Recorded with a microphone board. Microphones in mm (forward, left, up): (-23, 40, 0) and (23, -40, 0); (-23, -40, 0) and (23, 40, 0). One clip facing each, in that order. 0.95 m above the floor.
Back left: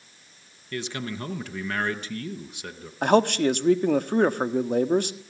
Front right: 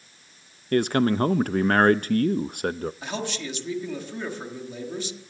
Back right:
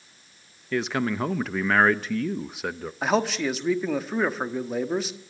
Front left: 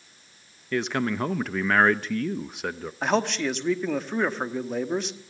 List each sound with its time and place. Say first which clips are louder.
0.7 s a man speaking: front right 12 dB, even; 30° right, 0.6 m
3.0 s a man speaking: back left 12 dB, back right 1 dB; 150° left, 1.4 m